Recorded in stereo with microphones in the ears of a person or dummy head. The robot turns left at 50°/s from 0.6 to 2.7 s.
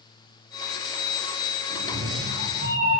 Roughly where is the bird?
No bird in this recording.